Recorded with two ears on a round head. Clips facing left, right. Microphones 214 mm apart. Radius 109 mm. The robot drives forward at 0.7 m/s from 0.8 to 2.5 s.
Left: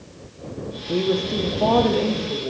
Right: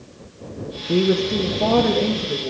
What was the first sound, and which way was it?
A woman speaking, 20° right (ahead or behind).